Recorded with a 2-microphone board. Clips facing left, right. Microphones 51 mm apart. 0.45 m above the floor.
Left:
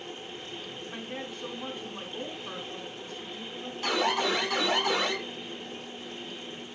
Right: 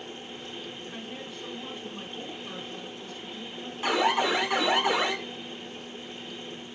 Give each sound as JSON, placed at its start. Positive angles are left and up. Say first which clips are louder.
{"t": 0.9, "sound": "a woman speaking", "louder": "left 1 dB", "side_deg": 30, "distance_m": 3.0}
{"t": 3.8, "sound": "an alarm", "louder": "right 3 dB", "side_deg": -15, "distance_m": 1.4}